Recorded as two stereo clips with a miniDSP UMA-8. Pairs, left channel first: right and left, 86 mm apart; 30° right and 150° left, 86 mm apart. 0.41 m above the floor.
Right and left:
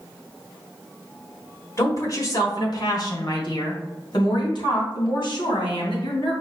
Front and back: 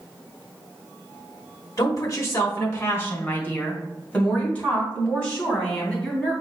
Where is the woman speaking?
55° right, 1.3 m; by 6.3 s 110° right, 3.5 m.